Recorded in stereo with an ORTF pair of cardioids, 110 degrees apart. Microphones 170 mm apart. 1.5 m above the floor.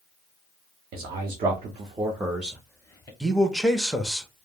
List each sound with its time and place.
0.9 s a man speaking: 65° right, 1.0 m; by 3.1 s 25° left, 0.8 m
3.2 s a man speaking: straight ahead, 0.6 m